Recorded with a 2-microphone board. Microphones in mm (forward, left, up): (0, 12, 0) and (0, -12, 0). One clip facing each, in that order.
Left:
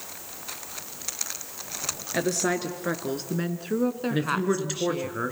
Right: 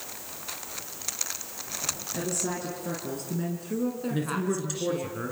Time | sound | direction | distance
2.1 | a woman speaking | 50° left (ahead or behind) | 3 m
4.1 | a man speaking | 25° left (ahead or behind) | 2 m